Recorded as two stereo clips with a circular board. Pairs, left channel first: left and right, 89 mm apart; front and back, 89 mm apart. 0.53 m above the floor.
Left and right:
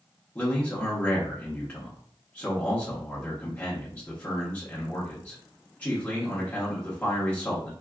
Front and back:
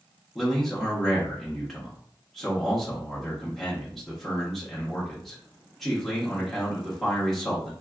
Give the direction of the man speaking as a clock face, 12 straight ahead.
9 o'clock.